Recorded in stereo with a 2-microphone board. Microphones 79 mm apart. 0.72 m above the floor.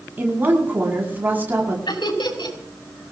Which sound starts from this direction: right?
A woman speaking, at 0.2 s.